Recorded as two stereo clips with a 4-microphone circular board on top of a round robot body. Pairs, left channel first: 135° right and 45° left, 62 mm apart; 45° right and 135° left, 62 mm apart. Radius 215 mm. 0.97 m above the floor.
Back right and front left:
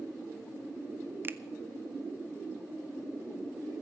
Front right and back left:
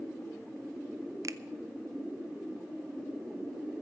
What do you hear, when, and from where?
1.2 s a finger snap: 100° left, 0.6 m